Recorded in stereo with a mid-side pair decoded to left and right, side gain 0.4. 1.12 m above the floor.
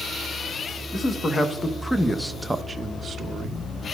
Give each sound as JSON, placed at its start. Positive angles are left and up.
{"t": 0.9, "sound": "a man speaking", "azimuth_deg": 40, "distance_m": 1.3}